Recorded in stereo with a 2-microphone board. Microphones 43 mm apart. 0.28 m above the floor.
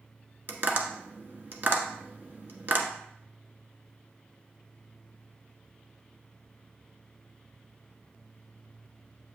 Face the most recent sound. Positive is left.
turn(degrees=-45)  # may be behind; listen again after turning